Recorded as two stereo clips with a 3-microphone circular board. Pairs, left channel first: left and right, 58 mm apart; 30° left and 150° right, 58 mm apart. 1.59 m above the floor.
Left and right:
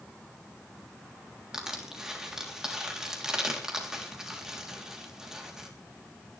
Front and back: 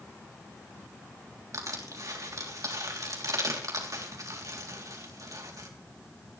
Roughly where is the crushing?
Behind.